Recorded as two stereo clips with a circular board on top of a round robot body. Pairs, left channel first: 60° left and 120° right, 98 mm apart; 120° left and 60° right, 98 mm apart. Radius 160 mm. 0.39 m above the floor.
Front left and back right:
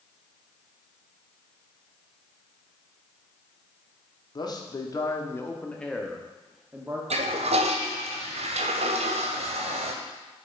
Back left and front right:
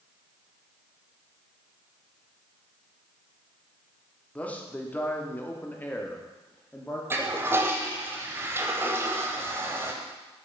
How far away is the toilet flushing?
About 0.8 m.